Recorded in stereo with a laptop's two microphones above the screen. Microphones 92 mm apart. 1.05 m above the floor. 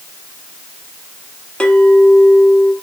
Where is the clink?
10° left (ahead or behind), 0.9 m.